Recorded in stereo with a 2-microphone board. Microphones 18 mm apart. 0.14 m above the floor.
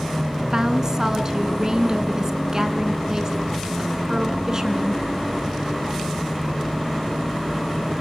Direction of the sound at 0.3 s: 30° right (ahead or behind).